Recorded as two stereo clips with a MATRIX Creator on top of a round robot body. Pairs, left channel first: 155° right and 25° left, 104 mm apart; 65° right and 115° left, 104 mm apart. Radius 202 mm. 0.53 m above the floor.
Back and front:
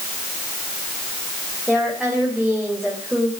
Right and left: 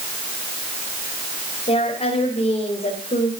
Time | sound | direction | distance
1.7 | a woman speaking | 65° right | 4 m